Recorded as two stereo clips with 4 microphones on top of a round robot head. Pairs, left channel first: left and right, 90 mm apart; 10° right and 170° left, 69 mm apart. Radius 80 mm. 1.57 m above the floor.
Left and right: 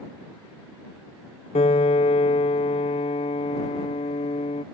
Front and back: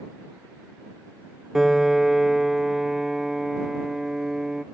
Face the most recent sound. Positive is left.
turn(degrees=85)